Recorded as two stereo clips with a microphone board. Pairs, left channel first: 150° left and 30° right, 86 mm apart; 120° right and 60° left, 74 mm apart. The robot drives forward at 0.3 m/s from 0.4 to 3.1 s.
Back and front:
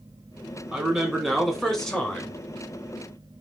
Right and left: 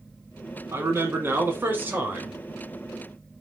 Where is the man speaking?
45° left, 1.3 m; by 2.4 s 90° left, 1.2 m.